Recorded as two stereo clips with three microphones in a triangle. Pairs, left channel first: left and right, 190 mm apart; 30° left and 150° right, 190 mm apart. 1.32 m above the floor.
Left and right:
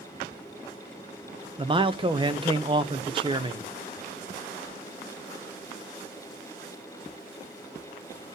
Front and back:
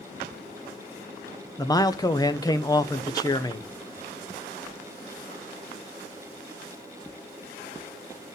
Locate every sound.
1.6 s a man speaking: 35° right, 0.7 m